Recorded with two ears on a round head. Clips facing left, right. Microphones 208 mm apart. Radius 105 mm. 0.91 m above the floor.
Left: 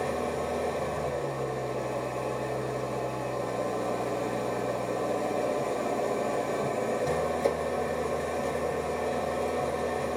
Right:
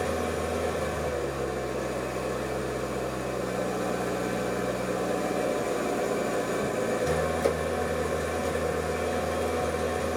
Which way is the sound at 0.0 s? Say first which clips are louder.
Right 1 dB; 15° right (ahead or behind).